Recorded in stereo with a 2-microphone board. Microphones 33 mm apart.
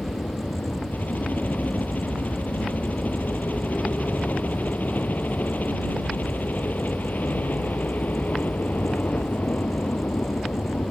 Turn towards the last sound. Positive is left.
turn(degrees=60)  # may be behind; listen again after turning